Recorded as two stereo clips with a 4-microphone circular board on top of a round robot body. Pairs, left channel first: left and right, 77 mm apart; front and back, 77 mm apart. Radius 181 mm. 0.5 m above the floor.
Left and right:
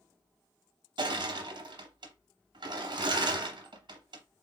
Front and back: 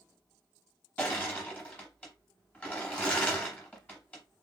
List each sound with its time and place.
1.0 s crushing: 75° right, 1.0 m